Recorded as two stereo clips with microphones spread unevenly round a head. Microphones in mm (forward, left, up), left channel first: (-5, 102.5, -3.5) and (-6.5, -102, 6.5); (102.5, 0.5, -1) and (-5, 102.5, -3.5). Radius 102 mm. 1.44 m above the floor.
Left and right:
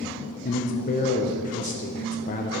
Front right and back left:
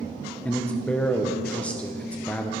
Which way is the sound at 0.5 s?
35° left.